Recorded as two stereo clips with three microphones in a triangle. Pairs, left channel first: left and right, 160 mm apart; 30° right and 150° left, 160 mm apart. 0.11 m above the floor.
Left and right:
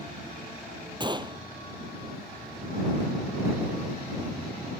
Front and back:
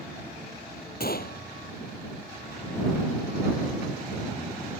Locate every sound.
1.0 s a gunshot: 30° right